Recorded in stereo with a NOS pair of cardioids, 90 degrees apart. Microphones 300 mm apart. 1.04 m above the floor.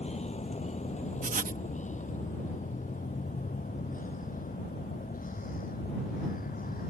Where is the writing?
25° right.